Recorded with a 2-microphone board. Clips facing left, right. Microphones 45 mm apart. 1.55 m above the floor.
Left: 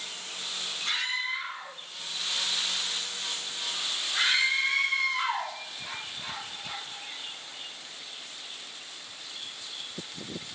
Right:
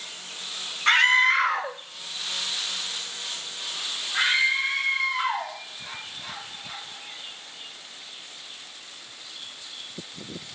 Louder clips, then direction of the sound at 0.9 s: Right 14 dB; 55° right (ahead or behind).